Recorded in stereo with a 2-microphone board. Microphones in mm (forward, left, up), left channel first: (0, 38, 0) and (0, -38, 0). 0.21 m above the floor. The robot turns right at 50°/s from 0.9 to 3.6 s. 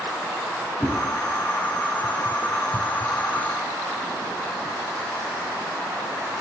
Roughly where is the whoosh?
Left.